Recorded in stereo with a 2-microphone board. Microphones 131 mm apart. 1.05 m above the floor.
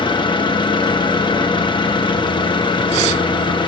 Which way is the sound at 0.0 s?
35° left (ahead or behind).